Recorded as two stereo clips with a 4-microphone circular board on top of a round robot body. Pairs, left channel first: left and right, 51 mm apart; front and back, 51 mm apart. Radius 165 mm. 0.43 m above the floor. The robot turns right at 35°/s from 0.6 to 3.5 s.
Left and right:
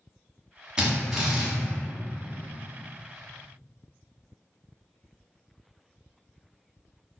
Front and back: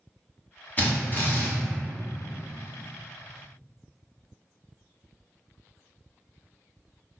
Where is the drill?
30° right, 1.5 m; by 1.5 s 5° right, 1.5 m.